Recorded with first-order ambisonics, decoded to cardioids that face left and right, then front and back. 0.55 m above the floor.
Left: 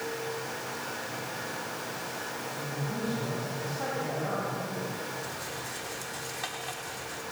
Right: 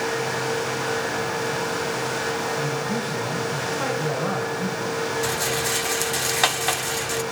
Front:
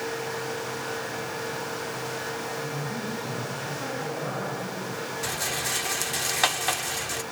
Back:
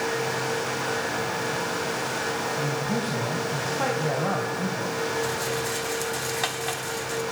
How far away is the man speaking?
About 4.5 m.